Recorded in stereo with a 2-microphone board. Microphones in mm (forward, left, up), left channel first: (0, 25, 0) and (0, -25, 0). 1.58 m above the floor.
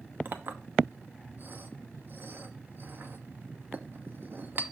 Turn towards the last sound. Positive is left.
turn(degrees=-45)  # may be behind; listen again after turning